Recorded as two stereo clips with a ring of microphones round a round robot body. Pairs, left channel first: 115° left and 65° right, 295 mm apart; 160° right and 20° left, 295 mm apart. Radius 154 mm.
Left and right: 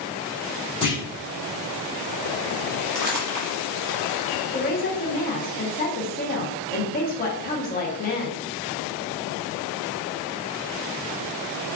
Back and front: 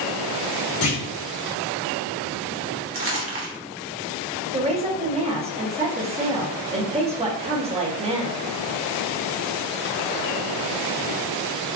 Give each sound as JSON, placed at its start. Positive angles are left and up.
{"t": 0.8, "sound": "a clunk", "azimuth_deg": -175, "distance_m": 1.8}
{"t": 2.9, "sound": "crumpling", "azimuth_deg": -25, "distance_m": 1.1}
{"t": 4.5, "sound": "a woman speaking", "azimuth_deg": 80, "distance_m": 0.8}